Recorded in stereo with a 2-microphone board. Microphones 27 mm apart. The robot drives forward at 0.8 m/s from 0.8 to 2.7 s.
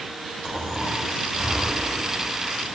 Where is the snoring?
30° right (ahead or behind), 5 m; by 2.8 s 25° right (ahead or behind), 6.5 m.